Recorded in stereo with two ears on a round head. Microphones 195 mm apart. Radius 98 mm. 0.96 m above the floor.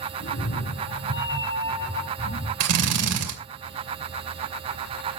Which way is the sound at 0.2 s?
65° left (ahead or behind).